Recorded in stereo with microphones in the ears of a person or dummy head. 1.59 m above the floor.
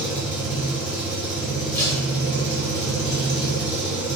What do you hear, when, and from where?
0.0 s an engine running: centre (ahead or behind), 1.6 m
1.7 s tape being pulled: 10° left (ahead or behind), 1.2 m